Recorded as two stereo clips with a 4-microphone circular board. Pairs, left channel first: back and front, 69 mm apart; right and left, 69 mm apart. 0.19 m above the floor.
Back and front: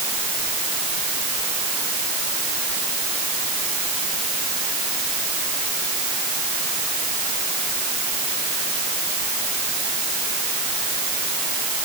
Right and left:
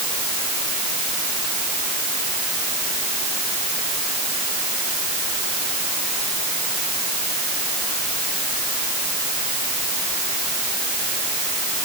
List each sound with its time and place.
Only background noise.